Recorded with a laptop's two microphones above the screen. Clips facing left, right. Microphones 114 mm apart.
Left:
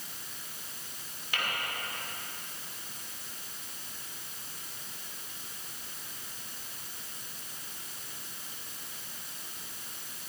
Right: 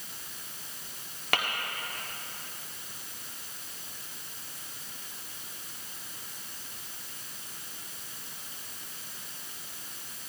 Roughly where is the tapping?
Right.